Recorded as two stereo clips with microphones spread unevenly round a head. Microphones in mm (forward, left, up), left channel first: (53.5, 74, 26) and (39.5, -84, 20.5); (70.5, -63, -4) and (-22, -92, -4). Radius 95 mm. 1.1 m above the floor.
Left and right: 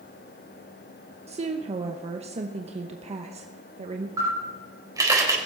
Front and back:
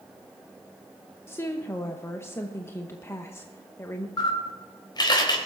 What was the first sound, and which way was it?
A woman speaking, 45° right.